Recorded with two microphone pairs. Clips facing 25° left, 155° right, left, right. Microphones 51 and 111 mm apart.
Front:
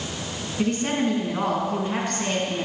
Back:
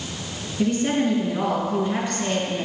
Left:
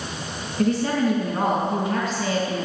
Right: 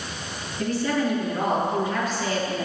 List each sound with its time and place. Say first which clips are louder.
0.6 s a woman speaking: back 2 dB, left 3 dB; 65° left, 5.5 m